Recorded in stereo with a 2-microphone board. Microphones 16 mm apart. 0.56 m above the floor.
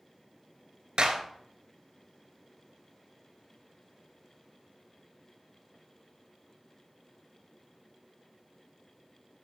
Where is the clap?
55° right (ahead or behind), 2 m.